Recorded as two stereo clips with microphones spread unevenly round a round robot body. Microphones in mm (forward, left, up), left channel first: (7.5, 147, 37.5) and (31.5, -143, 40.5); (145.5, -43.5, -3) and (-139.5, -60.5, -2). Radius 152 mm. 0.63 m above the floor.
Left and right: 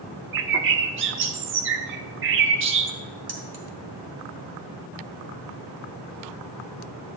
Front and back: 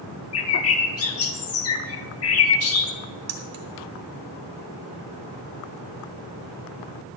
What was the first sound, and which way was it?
A bird, 35° right.